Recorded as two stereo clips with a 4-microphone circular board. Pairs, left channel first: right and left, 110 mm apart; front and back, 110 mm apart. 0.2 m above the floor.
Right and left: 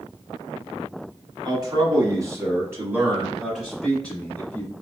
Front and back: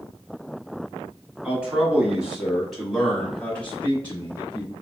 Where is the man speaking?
110° left, 1.5 m; by 4.7 s 40° right, 1.3 m.